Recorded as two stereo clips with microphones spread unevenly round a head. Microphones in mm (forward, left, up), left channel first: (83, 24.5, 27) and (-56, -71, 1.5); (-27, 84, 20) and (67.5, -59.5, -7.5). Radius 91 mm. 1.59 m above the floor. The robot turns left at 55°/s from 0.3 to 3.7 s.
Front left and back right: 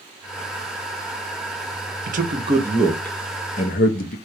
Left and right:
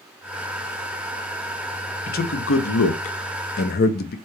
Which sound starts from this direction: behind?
A man speaking, at 2.1 s.